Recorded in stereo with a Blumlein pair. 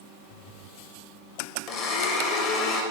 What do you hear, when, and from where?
1.7 s a blender: 40° left, 0.9 m